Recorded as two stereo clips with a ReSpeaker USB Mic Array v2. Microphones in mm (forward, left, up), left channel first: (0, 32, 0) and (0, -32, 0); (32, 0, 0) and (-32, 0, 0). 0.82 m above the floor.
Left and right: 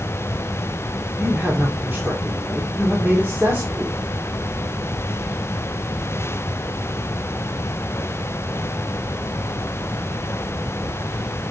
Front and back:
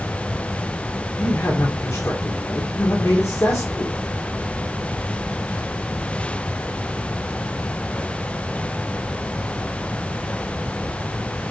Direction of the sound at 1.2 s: 35° right.